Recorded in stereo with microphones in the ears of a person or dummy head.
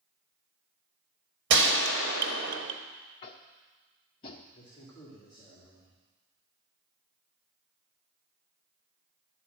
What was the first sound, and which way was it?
A gunshot, 70° right (ahead or behind).